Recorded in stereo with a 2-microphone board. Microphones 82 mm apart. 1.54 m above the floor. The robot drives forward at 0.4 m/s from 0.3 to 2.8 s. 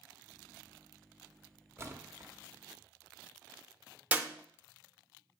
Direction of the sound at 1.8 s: 30° right (ahead or behind).